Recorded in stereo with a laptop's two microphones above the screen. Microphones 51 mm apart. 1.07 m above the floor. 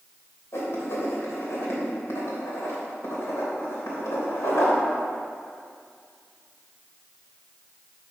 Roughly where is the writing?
Left.